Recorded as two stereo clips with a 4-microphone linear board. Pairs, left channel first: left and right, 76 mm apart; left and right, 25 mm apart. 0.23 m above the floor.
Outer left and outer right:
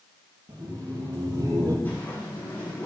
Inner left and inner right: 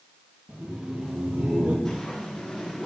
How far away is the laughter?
About 6 m.